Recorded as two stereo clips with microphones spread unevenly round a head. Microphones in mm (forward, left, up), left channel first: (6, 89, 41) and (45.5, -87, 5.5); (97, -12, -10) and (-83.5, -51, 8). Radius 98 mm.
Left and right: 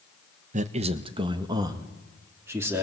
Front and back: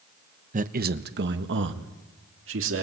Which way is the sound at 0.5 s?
120° right.